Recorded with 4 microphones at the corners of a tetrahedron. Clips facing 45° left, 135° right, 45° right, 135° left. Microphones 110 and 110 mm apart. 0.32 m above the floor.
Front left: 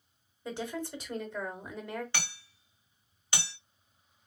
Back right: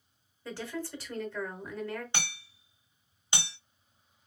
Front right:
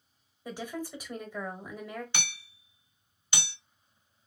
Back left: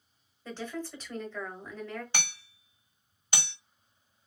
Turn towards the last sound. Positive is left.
turn(degrees=165)